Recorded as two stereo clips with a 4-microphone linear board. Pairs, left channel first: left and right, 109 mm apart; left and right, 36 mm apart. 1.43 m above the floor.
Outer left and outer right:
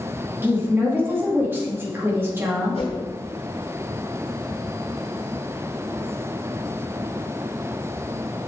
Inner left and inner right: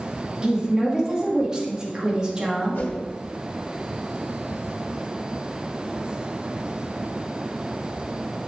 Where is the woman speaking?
20° right (ahead or behind), 2.5 m.